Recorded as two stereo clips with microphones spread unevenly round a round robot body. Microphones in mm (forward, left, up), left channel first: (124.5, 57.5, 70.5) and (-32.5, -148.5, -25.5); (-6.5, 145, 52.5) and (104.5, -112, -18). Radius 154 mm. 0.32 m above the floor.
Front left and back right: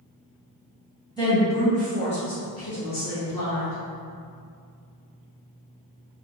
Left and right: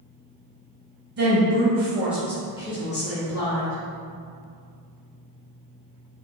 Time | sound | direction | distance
1.2 | a woman speaking | 35° right | 1.7 m